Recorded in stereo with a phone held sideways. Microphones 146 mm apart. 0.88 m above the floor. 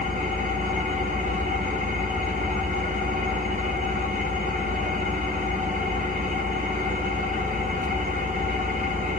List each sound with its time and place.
0.0 s an engine running: 70° right (ahead or behind), 0.9 m